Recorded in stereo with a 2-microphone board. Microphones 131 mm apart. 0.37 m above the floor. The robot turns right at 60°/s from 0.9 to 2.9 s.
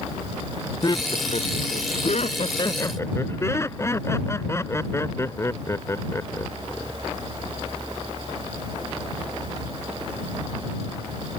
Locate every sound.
0.8 s laughter: 35° left; by 7.0 s 155° left